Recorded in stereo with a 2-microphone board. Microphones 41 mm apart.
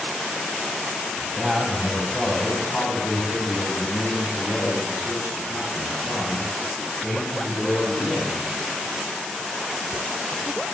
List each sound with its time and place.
1.2 s a man speaking: 10° right (ahead or behind), 1.3 m; by 8.4 s 70° left (ahead or behind), 4 m